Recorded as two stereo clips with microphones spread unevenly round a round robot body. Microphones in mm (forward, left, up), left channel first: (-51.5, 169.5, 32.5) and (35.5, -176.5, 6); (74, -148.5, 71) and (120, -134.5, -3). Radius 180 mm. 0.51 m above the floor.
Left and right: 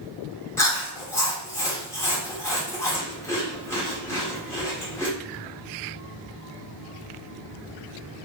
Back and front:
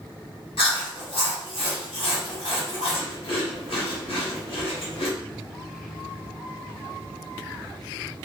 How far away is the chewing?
About 1.5 m.